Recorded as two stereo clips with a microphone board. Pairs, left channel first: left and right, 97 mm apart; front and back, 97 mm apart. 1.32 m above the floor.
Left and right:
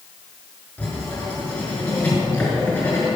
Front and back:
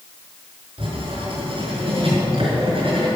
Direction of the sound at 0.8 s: 165° left.